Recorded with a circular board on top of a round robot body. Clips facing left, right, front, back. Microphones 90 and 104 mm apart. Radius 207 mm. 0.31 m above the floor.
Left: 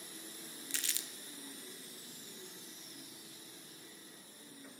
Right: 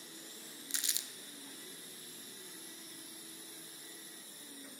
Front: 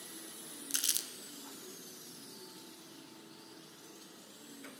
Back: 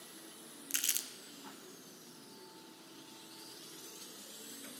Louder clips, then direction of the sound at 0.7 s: Left 1 dB, back 1 dB; 40° right.